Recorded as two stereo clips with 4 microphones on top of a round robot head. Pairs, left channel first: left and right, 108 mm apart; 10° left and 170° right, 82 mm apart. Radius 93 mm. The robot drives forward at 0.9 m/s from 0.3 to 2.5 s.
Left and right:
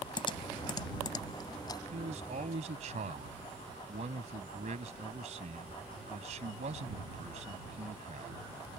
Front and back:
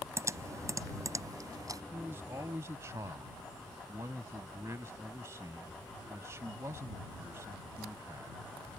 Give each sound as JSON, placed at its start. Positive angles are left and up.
{"t": 0.2, "sound": "typing on a keyboard", "azimuth_deg": 140}
{"t": 1.9, "sound": "a man speaking", "azimuth_deg": -100}